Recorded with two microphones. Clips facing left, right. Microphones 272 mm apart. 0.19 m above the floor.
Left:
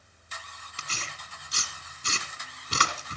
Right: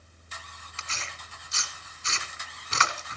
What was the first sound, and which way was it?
Tearing paper, 40° left (ahead or behind).